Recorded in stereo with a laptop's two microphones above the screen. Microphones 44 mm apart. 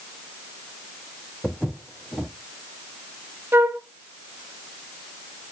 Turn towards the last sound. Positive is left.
turn(degrees=-55)  # may be behind; listen again after turning